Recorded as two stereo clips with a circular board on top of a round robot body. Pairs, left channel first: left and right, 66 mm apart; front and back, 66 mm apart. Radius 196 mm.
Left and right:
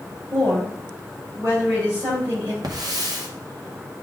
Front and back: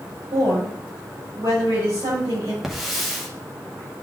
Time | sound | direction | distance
0.3 | a woman speaking | 145° right | 5.5 m
2.6 | a hiss | 95° right | 1.9 m